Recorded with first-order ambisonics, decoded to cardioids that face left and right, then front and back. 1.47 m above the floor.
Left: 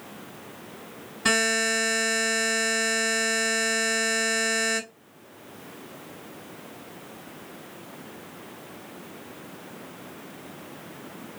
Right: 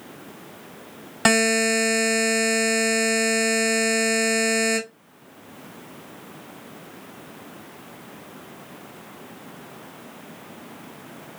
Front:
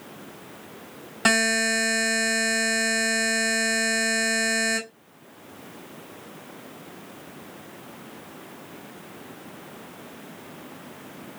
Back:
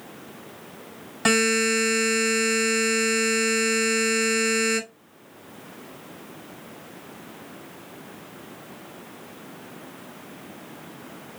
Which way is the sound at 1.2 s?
80° right.